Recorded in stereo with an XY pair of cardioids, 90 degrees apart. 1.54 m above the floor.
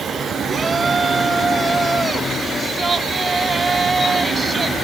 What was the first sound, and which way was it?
A shout, 25° right.